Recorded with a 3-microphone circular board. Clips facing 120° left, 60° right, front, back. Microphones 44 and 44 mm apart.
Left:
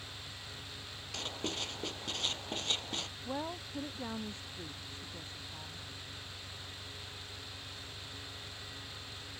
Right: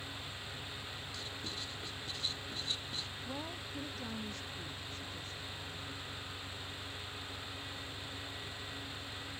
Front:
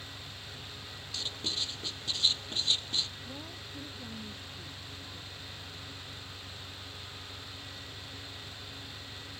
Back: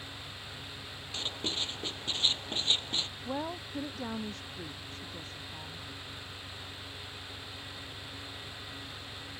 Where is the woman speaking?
175° right.